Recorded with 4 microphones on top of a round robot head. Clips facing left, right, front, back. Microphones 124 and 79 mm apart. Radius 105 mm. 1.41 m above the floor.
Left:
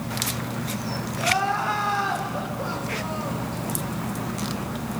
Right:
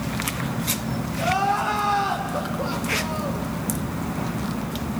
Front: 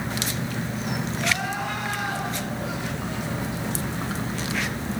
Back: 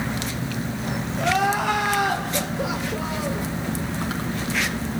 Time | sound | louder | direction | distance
1.2 | crying | right 2 dB, back 9 dB | 165° right | 2.5 m